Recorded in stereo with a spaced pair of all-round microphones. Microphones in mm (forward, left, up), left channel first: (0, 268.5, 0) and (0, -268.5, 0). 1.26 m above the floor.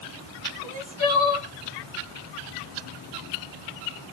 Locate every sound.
0.6 s crying: 45° right (ahead or behind), 1.6 m